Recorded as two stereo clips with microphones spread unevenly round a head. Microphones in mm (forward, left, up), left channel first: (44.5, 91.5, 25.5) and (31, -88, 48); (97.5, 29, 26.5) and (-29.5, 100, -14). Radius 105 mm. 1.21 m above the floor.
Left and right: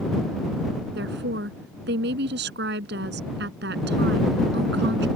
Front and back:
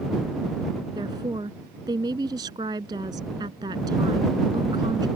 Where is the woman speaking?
135° right.